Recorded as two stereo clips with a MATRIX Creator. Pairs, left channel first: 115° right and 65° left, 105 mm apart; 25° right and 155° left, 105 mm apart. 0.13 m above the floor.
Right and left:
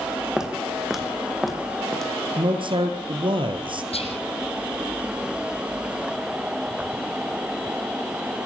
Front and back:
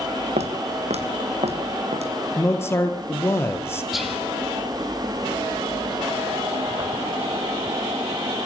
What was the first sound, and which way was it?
Footsteps, 150° left.